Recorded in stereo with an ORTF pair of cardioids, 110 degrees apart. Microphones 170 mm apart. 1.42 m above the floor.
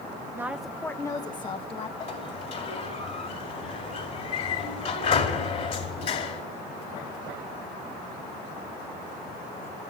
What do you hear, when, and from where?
0.3 s a woman speaking: 15° right, 0.9 m; by 1.9 s 35° left, 1.7 m
2.0 s a sliding door: 35° left, 2.5 m